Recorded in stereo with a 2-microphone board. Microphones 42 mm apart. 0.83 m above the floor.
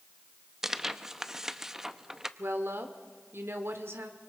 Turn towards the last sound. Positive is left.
turn(degrees=-80)